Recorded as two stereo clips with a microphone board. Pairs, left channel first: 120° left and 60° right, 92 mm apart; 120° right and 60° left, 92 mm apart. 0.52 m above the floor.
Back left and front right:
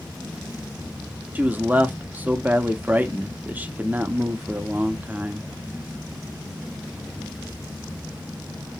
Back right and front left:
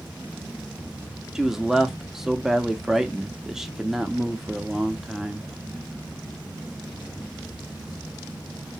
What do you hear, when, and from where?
1.4 s a man speaking: 20° right, 0.7 m